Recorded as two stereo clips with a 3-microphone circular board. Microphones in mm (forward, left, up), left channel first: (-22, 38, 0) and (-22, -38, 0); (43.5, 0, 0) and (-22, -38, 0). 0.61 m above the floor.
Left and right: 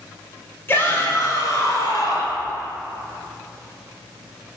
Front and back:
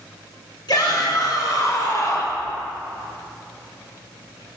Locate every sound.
0.7 s a shout: 35° left, 1.7 m; by 2.4 s 75° left, 2.5 m